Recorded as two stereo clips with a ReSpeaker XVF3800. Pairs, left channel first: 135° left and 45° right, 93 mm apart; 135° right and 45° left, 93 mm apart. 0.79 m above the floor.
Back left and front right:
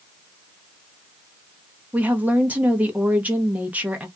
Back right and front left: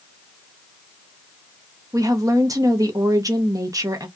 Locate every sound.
1.9 s a woman speaking: 20° left, 0.8 m